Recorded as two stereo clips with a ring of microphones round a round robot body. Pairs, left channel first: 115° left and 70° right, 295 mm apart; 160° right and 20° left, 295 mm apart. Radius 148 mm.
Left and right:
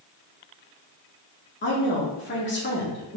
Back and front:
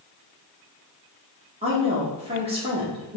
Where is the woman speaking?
85° left, 1.3 m.